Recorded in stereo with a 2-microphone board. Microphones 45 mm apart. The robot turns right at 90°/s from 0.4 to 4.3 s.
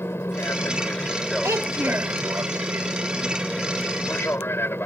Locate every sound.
0.0 s an aircraft: 85° left; by 4.9 s 75° left
1.4 s a child speaking: 95° right; by 2.2 s 30° right